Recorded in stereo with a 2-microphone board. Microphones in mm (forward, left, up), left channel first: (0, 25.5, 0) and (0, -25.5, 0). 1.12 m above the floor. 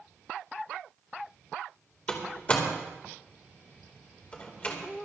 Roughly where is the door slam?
Left.